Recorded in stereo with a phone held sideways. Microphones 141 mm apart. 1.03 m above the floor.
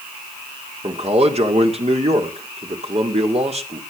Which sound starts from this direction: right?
A man speaking, at 0.8 s.